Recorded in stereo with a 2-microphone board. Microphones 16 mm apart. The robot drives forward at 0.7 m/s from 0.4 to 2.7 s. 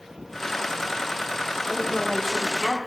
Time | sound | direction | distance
1.7 | a woman speaking | 10° left (ahead or behind) | 5 m